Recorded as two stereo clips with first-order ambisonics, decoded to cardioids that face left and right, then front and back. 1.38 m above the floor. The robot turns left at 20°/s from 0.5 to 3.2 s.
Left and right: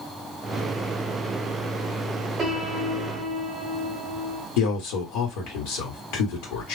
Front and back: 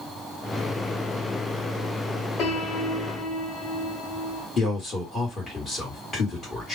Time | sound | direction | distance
2.4 | a piano | 25° right | 1.1 m
4.6 | a man speaking | 70° left | 1.7 m